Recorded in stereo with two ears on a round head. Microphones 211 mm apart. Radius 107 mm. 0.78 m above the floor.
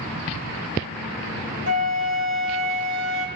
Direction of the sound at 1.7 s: 35° right (ahead or behind).